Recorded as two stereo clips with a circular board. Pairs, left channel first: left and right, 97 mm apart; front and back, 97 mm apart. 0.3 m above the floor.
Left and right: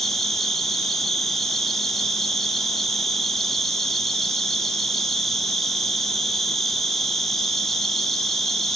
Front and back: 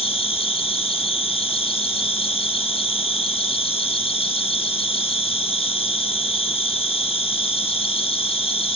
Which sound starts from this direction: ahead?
An insect, at 0.0 s.